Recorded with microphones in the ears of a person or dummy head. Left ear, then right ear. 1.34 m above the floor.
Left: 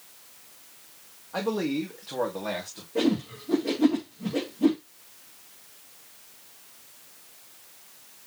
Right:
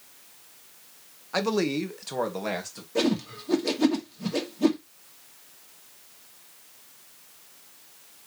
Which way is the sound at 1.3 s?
65° right (ahead or behind).